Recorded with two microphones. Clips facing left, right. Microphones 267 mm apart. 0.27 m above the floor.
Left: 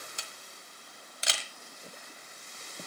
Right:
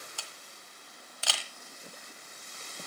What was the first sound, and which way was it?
A camera shutter, 20° left (ahead or behind).